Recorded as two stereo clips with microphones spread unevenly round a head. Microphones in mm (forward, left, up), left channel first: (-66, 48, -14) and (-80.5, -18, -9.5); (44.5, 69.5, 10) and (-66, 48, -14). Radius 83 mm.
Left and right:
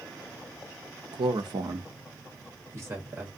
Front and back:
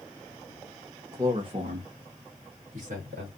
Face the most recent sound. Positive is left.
turn(degrees=-160)